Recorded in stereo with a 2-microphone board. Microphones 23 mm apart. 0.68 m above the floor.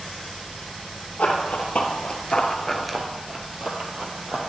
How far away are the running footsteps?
About 1.4 m.